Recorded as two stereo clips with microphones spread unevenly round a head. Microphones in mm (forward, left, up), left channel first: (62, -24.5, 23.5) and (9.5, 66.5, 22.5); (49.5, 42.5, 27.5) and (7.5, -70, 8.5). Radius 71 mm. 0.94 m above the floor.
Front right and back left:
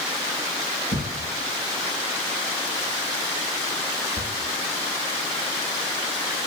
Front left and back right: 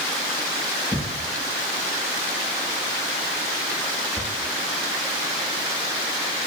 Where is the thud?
165° left, 8 m.